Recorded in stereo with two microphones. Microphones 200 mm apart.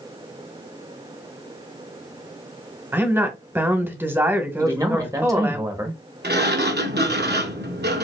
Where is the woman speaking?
10° right (ahead or behind), 1.1 m.